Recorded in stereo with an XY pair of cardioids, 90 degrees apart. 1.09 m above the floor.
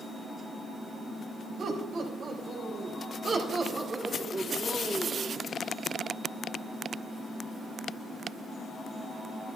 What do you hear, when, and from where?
1.6 s laughter: 70° right, 4.5 m; by 5.4 s 10° right, 1.8 m